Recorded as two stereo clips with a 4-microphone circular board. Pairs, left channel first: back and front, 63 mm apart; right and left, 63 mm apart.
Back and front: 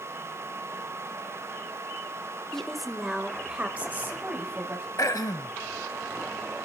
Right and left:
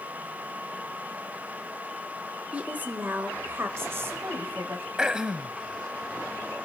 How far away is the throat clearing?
About 0.6 m.